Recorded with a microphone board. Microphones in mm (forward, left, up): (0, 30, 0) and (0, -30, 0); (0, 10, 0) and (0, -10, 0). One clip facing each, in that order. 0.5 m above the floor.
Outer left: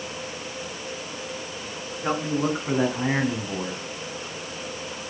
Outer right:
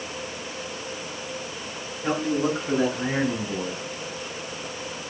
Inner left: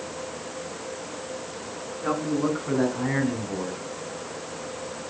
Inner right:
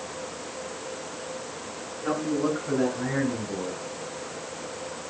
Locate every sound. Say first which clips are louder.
2.0 s a man speaking: outer right 1 dB, inner left 1 dB; 25° left (ahead or behind), 5 m; by 3.8 s 55° left (ahead or behind), 3.5 m